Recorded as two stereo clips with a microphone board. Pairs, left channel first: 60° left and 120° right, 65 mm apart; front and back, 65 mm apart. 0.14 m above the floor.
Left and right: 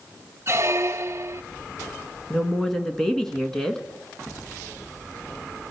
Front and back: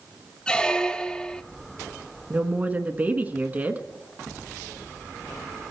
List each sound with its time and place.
0.5 s a squeak: 75° right, 0.6 m
2.3 s a woman speaking: 140° left, 1.3 m